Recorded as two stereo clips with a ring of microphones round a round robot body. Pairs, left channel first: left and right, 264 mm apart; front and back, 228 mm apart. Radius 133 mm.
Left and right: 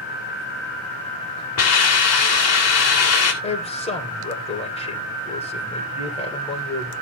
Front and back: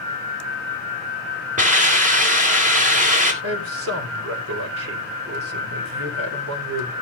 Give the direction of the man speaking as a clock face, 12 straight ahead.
7 o'clock.